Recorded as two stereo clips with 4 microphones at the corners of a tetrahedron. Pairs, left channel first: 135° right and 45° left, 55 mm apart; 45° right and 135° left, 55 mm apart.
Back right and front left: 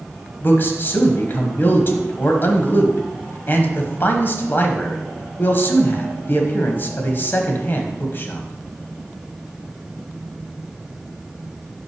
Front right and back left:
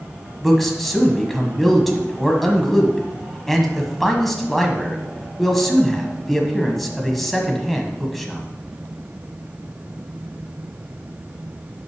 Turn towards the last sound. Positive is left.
turn(degrees=-135)